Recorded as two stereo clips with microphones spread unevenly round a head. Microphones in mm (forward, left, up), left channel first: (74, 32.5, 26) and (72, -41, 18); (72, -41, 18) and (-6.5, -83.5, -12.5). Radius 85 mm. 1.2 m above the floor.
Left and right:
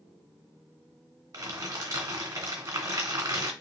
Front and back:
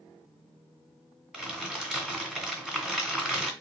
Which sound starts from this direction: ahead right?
Crumpling, at 1.3 s.